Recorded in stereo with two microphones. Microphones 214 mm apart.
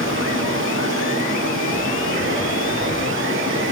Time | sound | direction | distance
0.0 | running water | 65° right (ahead or behind) | 4 m